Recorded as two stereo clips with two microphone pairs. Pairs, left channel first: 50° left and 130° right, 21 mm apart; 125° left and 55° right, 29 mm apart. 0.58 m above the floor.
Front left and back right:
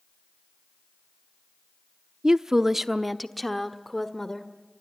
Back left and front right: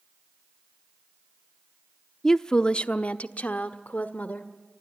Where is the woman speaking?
165° right, 0.7 m; by 4.5 s 120° left, 1.7 m.